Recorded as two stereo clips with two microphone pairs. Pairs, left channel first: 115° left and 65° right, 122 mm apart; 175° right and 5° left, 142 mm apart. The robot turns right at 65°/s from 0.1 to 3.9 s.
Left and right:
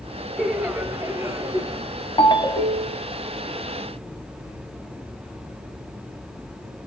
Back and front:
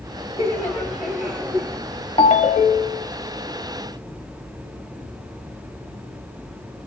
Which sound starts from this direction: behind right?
Laughter, at 0.4 s.